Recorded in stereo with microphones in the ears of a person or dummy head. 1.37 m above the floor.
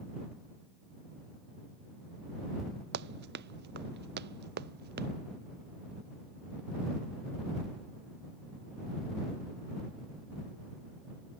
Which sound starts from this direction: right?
Running footsteps, at 2.9 s.